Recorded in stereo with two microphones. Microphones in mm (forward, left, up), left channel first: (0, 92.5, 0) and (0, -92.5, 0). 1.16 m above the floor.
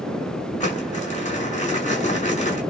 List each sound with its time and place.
0.6 s crumpling: 40° left (ahead or behind), 6 m